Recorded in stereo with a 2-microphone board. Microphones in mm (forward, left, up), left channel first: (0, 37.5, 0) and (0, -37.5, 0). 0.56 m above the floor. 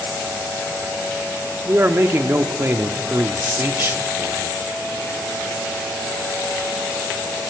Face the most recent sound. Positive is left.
turn(degrees=-35)  # may be behind; listen again after turning